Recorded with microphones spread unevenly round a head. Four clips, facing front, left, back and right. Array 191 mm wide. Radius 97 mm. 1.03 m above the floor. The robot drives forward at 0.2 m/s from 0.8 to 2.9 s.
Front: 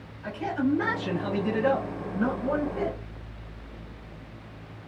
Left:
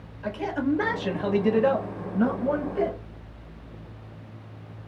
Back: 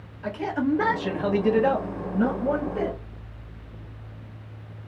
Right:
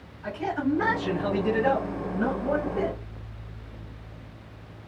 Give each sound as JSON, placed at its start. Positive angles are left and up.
{"t": 0.2, "sound": "a man speaking", "azimuth_deg": 130, "distance_m": 1.5}